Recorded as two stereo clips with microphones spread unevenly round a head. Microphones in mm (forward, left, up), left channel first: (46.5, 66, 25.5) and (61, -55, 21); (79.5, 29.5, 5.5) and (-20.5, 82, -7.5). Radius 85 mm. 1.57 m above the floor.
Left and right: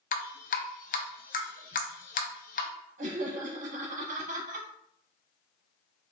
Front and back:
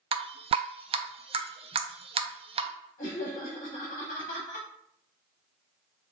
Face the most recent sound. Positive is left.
turn(degrees=-65)